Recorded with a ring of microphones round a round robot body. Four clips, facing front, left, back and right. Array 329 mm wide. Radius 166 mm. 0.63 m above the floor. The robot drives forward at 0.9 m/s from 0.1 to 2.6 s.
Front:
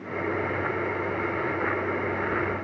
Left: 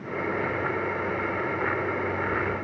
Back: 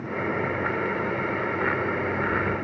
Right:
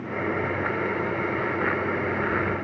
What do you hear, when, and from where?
Only background noise.